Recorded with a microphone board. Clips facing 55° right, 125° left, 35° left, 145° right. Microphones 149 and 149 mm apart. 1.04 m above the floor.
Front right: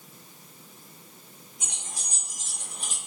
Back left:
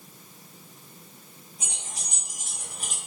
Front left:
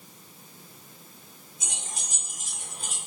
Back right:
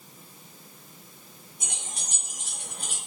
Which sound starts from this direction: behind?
Keys jangling, at 1.6 s.